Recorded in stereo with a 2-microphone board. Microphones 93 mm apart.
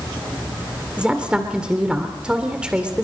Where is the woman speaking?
15° right (ahead or behind), 2 m.